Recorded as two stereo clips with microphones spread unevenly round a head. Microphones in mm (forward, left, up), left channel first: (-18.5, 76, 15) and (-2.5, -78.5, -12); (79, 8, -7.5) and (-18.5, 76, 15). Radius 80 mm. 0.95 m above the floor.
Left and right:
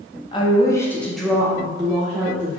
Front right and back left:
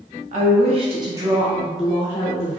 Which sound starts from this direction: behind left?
A woman speaking, at 0.3 s.